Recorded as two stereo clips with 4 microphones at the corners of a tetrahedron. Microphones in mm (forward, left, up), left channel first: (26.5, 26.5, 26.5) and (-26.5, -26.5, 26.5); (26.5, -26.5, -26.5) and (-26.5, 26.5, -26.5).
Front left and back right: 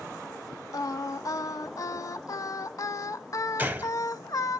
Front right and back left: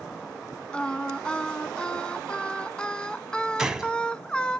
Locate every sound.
0.7 s singing: 30° left, 0.5 m
3.6 s a gunshot: 155° right, 0.9 m